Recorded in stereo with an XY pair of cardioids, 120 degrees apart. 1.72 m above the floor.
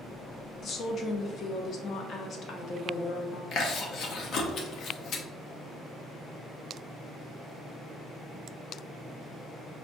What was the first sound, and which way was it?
A woman speaking, 50° left.